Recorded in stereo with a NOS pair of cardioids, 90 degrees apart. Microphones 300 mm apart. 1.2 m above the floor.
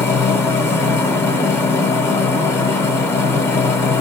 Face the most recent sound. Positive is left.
turn(degrees=10)